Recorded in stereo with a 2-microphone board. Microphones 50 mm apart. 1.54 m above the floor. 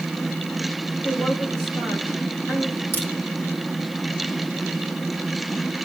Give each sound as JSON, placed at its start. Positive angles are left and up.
{"t": 1.0, "sound": "a woman speaking", "side_deg": 45, "distance_m": 7.5}
{"t": 2.9, "sound": "a crack", "side_deg": 45, "distance_m": 2.0}